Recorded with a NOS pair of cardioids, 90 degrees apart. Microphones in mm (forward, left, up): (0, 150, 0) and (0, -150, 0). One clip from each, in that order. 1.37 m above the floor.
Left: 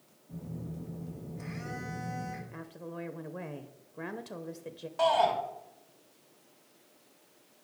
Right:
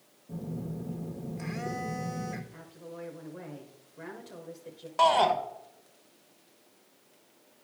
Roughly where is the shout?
Ahead right.